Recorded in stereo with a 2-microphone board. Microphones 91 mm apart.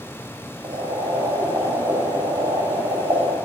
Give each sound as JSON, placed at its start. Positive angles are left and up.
{"t": 0.6, "sound": "boiling", "side_deg": -65, "distance_m": 6.0}